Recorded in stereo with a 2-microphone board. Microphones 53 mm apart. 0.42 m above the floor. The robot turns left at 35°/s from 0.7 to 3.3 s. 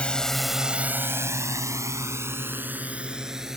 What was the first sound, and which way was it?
A drone, 20° left (ahead or behind).